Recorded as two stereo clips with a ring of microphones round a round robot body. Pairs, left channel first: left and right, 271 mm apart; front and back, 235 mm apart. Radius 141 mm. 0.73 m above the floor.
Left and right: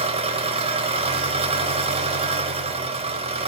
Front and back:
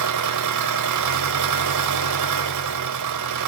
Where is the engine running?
160° right, 1.4 m.